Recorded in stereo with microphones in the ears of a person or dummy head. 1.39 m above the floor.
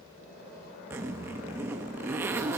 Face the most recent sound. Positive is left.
turn(degrees=-10)  # may be behind; listen again after turning